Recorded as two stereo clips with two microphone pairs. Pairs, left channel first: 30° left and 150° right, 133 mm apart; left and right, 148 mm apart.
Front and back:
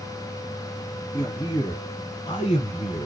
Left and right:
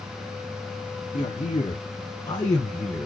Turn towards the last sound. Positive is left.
turn(degrees=10)